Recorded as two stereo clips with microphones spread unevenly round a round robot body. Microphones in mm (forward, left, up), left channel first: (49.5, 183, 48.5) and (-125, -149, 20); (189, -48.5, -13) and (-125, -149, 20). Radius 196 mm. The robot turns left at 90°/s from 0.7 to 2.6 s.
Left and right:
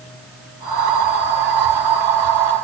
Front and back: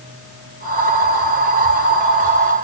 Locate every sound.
Only background noise.